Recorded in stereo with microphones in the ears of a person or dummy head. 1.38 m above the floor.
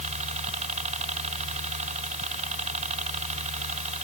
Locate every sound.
0.0 s a helicopter: 40° right (ahead or behind)